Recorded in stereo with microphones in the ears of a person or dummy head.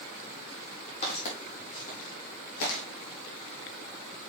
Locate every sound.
1.0 s footsteps: 40° left (ahead or behind), 3.5 m; by 2.8 s 60° left (ahead or behind), 3.5 m